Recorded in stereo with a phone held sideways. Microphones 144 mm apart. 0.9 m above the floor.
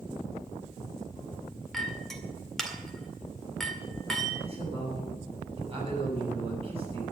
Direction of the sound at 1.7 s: Centre (ahead or behind).